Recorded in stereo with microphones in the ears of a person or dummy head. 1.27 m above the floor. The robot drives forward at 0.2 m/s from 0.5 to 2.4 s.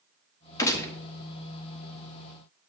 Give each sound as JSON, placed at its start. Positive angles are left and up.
{"t": 0.6, "sound": "a gunshot", "side_deg": 15, "distance_m": 0.8}